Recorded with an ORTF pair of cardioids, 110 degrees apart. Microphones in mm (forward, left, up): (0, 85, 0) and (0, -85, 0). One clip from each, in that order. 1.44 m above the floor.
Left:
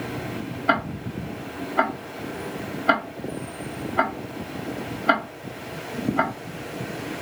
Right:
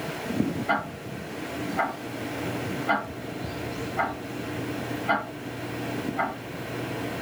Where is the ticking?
55° left, 0.8 m.